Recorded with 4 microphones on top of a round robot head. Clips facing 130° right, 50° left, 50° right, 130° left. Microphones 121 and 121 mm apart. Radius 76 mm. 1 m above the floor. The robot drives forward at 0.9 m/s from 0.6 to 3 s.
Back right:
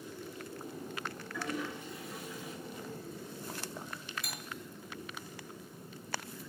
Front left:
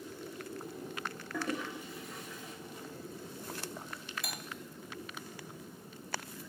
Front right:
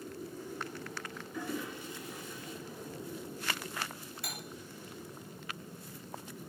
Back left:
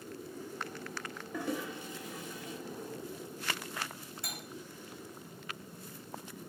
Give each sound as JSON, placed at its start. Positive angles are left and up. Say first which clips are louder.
{"t": 1.3, "sound": "a toilet flushing", "louder": "front left 2 dB, back left 2 dB", "azimuth_deg": 90, "distance_m": 0.6}
{"t": 4.2, "sound": "cutlery clinking", "louder": "front left 2 dB, front right 1 dB", "azimuth_deg": 65, "distance_m": 1.0}